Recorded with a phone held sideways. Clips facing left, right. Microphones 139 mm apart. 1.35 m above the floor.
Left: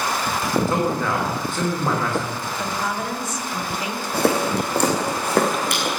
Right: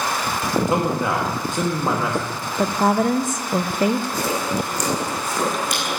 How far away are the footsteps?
About 3.5 m.